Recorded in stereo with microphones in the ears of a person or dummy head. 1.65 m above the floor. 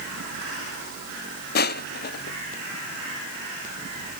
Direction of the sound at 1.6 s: 55° left (ahead or behind).